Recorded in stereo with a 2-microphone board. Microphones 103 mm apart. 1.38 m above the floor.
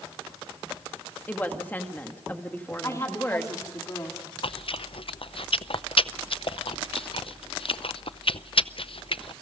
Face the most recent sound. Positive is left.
turn(degrees=60)  # may be behind; listen again after turning